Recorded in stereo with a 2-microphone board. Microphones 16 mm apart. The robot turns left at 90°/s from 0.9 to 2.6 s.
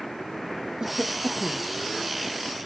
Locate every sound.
0.8 s a cough: 105° right; by 1.7 s 175° right